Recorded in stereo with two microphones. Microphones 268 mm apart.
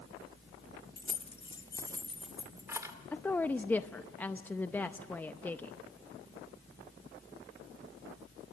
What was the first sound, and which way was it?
Keys jangling, 35° left (ahead or behind).